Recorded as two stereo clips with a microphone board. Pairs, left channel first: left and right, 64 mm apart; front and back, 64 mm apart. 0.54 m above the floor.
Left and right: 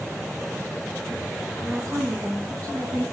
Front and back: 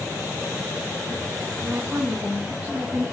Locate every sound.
1.6 s a woman speaking: 110° right, 5 m; by 3.0 s 105° right, 6 m